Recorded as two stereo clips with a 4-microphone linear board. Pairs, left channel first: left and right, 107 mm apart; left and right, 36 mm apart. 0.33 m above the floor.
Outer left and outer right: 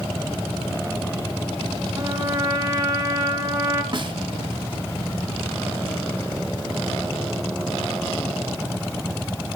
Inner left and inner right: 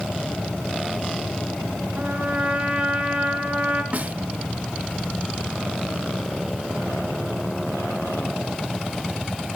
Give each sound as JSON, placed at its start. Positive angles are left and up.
{"t": 2.0, "sound": "a trumpet", "side_deg": -30, "distance_m": 1.9}
{"t": 3.9, "sound": "a snare drum", "side_deg": -45, "distance_m": 1.1}